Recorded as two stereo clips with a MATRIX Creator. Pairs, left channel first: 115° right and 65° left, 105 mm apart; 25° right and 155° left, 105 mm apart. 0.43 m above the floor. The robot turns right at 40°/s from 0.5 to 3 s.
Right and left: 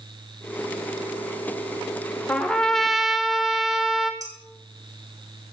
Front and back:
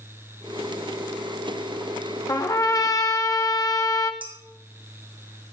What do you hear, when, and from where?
2.3 s a trumpet: 45° right, 1.0 m; by 4.1 s 15° right, 1.0 m
4.2 s dishes clattering: 120° left, 2.5 m